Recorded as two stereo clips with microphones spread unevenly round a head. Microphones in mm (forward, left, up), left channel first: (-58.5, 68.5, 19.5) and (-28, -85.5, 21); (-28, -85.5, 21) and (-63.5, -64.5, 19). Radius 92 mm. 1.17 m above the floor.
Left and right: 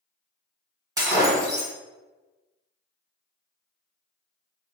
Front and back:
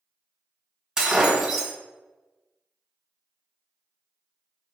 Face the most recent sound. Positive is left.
turn(degrees=-140)